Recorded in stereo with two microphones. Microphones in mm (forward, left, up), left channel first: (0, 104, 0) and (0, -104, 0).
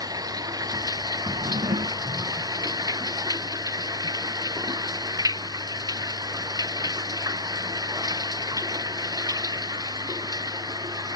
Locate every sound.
0.0 s running water: 20° right (ahead or behind)
1.3 s a drawer: 40° right (ahead or behind)